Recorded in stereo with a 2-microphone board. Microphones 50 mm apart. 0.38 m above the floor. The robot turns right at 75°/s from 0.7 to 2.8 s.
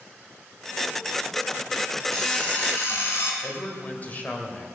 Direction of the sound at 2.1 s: 5° left.